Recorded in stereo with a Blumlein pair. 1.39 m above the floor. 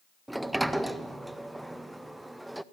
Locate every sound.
0.3 s a sliding door: 5° right, 0.8 m